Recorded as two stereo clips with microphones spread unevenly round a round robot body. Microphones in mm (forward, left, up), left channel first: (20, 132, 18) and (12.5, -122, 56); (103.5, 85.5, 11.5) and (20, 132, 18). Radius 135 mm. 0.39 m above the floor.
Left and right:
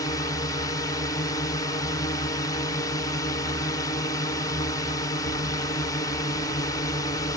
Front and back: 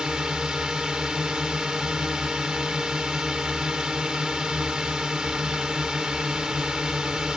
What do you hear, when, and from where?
0.0 s a drone: 75° left